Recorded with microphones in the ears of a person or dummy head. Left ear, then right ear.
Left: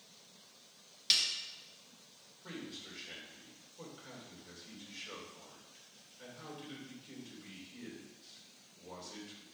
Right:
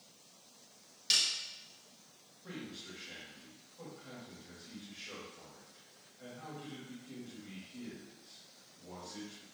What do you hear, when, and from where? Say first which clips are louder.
1.1 s a snare drum: even; 20° left (ahead or behind), 1.5 m
2.4 s a man speaking: even; 85° left, 4 m